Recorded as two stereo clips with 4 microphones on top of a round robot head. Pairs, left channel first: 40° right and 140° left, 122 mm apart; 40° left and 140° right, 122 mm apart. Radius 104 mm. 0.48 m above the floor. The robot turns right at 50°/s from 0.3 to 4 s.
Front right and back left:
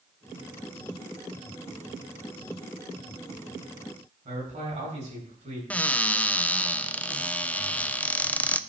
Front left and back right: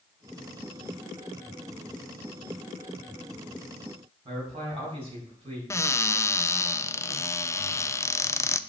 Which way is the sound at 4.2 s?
175° left.